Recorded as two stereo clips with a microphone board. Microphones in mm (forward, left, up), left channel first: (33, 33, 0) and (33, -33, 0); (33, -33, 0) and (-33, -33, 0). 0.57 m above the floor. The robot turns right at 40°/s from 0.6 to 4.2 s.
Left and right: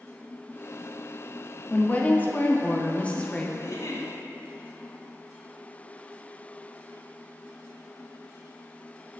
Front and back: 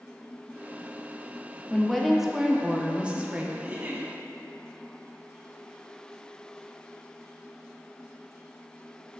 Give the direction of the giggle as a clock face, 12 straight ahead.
8 o'clock.